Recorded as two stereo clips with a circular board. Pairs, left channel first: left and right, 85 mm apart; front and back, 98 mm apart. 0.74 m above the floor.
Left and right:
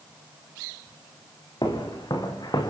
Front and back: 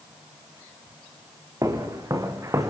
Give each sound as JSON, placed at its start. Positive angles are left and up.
{"t": 1.6, "sound": "footsteps", "azimuth_deg": 125, "distance_m": 4.0}